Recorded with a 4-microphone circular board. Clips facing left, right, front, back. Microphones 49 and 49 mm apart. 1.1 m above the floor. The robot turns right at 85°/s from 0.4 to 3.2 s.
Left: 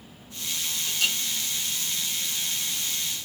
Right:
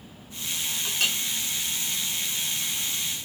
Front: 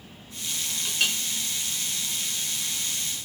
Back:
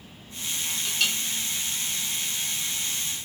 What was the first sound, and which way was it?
A clink, 85° right.